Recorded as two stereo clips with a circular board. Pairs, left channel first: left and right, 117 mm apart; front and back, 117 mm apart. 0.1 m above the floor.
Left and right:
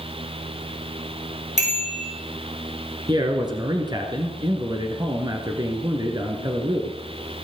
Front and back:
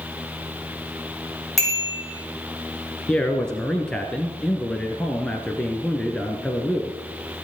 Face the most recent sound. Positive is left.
turn(degrees=-80)